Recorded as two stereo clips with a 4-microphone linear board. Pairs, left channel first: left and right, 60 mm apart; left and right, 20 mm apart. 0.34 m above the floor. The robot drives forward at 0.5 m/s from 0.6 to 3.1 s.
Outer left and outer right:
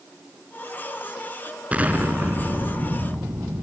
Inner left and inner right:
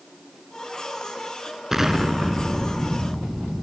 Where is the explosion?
20° right (ahead or behind), 1.7 m; by 3.6 s 35° right (ahead or behind), 1.1 m.